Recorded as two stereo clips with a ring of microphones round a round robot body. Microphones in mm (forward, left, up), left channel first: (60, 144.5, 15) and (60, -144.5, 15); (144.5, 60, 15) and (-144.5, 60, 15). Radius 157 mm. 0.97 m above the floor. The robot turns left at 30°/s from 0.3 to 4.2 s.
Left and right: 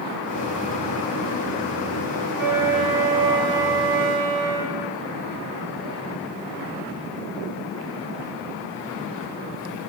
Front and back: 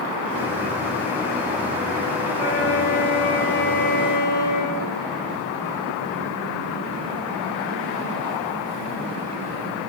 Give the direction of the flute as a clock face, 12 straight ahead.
12 o'clock.